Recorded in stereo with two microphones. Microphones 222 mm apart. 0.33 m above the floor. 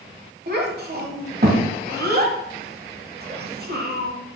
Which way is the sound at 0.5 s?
45° right (ahead or behind).